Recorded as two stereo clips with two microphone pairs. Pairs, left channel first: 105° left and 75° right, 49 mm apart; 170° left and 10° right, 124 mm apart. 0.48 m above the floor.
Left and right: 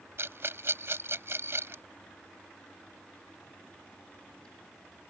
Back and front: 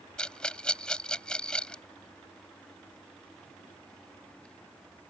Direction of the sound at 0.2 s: 110° right.